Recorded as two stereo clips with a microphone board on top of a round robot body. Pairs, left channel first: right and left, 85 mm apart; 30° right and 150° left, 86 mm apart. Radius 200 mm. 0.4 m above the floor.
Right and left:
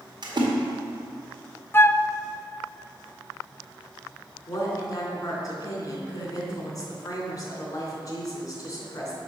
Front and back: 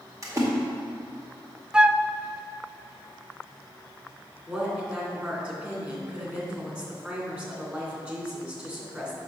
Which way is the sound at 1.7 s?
135° right.